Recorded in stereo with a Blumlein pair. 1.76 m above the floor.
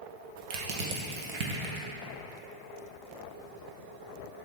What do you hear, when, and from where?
0.5 s crushing: 45° right, 1.0 m